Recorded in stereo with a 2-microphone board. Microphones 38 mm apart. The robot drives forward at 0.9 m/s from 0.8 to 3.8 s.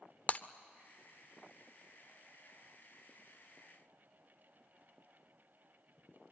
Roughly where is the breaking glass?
Left.